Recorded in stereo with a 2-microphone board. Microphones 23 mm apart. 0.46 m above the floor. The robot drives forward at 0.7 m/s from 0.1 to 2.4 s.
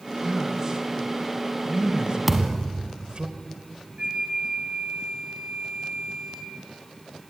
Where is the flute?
45° right (ahead or behind), 3.5 m.